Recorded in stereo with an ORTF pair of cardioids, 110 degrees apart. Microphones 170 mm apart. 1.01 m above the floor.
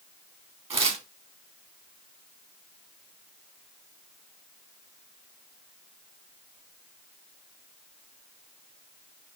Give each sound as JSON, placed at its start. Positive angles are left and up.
{"t": 0.7, "sound": "tearing paper", "azimuth_deg": -35, "distance_m": 1.2}